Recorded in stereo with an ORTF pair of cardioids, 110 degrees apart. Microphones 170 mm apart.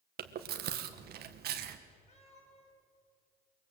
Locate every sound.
0.2 s chewing: 65° right, 1.7 m
2.1 s a cat meowing: 40° left, 6.5 m